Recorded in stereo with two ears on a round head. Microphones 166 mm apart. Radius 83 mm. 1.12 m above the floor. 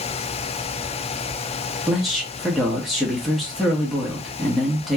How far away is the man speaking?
About 0.9 m.